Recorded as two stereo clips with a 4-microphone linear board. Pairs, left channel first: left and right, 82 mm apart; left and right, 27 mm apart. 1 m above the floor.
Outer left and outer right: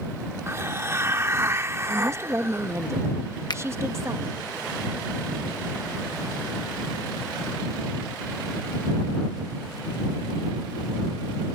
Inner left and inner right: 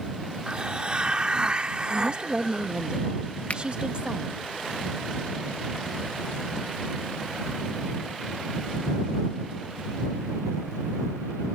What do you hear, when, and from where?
0.5 s a hiss: 35° right (ahead or behind)
1.9 s a woman speaking: 35° right (ahead or behind)
3.5 s a finger snap: 60° left (ahead or behind)